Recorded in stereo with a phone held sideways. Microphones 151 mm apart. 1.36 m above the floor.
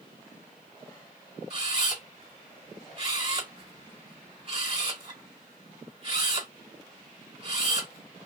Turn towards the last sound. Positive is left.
turn(degrees=-40)  # may be behind; listen again after turning